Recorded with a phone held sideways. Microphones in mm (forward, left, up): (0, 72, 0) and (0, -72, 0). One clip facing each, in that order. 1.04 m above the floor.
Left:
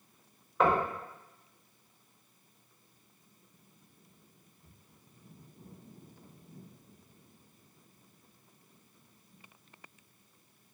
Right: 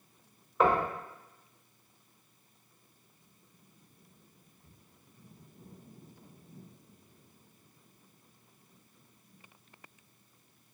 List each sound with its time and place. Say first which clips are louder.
0.6 s knocking: right 1 dB; centre (ahead or behind), 0.7 m